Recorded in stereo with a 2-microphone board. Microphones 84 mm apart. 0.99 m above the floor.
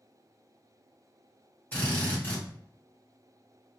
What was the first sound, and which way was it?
A drill, 20° left (ahead or behind).